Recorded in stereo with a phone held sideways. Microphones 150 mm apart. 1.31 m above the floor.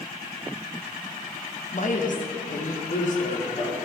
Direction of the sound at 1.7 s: 55° left (ahead or behind).